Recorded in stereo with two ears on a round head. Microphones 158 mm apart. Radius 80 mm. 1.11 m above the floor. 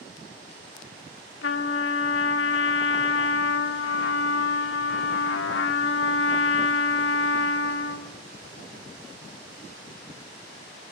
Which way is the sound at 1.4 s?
75° left (ahead or behind).